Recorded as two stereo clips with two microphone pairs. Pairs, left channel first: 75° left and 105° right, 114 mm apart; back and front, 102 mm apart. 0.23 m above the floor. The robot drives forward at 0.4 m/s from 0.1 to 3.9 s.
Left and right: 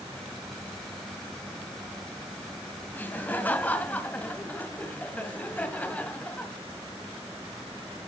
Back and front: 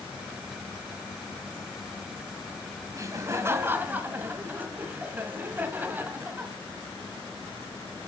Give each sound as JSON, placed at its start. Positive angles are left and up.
{"t": 2.9, "sound": "laughter", "azimuth_deg": 15, "distance_m": 1.4}